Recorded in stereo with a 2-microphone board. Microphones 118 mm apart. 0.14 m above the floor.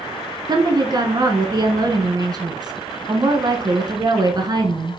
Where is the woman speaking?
35° right (ahead or behind), 1.4 m.